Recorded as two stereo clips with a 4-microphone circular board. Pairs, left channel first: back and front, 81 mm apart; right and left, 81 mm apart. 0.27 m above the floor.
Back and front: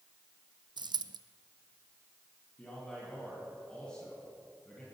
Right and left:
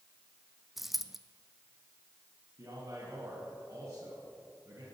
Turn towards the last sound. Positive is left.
turn(degrees=105)